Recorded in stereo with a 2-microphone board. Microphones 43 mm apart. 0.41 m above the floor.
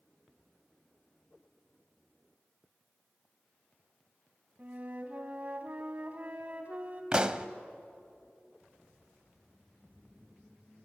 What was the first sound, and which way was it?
A flute, 35° right (ahead or behind).